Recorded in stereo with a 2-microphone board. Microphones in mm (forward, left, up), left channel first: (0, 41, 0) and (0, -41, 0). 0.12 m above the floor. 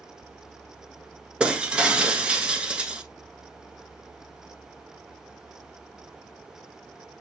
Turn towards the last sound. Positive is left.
turn(degrees=-10)  # may be behind; listen again after turning